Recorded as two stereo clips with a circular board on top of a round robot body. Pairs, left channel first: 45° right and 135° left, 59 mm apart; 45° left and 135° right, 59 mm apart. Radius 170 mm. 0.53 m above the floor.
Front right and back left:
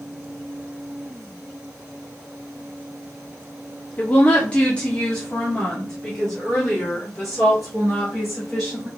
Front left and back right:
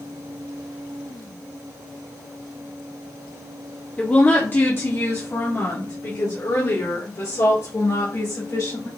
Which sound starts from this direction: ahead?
A woman speaking, at 4.0 s.